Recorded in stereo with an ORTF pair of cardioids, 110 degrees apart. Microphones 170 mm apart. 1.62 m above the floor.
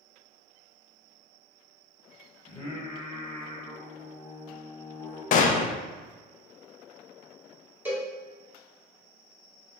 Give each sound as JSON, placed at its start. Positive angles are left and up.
{"t": 2.5, "sound": "singing", "azimuth_deg": 30, "distance_m": 1.3}
{"t": 5.3, "sound": "a gunshot", "azimuth_deg": 50, "distance_m": 0.5}
{"t": 7.8, "sound": "a cowbell", "azimuth_deg": -10, "distance_m": 1.5}